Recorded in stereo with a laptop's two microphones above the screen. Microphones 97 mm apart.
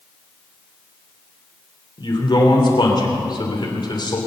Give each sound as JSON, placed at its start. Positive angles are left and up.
{"t": 2.0, "sound": "a man speaking", "side_deg": 50, "distance_m": 3.0}